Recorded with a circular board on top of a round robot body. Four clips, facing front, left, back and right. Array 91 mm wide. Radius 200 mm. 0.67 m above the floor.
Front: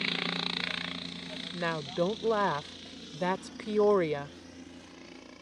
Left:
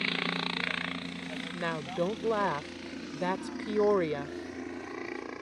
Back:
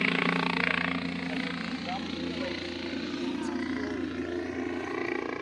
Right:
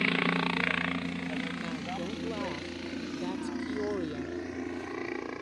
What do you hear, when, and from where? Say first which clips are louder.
0.0 s a helicopter: right 5 dB, back 8 dB; 155° right; by 5.4 s straight behind
1.5 s a woman speaking: left 3 dB, front 3 dB; 35° left